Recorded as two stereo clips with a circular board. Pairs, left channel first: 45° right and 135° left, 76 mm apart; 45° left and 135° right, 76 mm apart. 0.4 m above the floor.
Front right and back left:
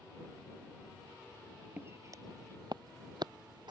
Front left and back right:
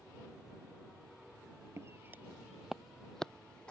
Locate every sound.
1.8 s footsteps: 170° right; by 3.7 s 125° left